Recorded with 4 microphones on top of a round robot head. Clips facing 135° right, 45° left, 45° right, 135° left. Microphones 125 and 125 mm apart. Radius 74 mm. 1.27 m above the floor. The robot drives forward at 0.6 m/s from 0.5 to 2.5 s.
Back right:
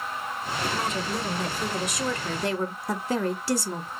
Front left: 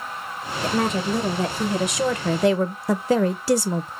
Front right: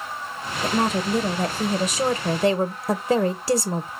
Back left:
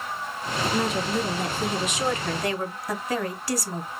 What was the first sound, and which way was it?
A woman speaking, 5° left.